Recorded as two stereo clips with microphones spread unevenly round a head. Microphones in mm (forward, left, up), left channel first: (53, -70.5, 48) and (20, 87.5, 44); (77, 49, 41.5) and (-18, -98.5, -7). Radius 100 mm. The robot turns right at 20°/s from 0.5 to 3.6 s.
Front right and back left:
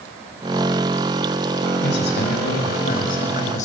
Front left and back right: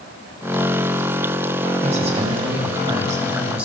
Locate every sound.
1.8 s a woman speaking: 75° right, 6.5 m; by 3.7 s 40° right, 6.5 m